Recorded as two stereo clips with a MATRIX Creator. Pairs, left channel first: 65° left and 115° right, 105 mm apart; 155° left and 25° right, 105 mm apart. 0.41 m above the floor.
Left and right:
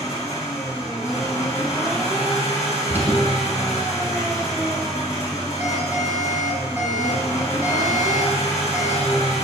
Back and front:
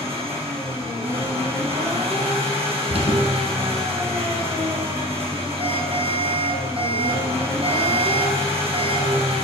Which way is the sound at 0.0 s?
5° left.